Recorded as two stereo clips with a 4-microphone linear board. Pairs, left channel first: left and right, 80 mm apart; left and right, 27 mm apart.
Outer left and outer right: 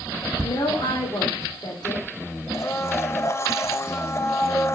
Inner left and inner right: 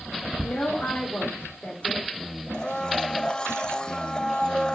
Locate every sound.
0.4 s a woman speaking: 65° left (ahead or behind), 3 m
2.5 s a blender: 35° left (ahead or behind), 0.6 m